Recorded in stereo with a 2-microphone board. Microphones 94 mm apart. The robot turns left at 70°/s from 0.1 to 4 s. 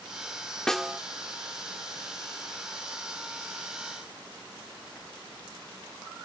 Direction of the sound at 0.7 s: 5° left (ahead or behind).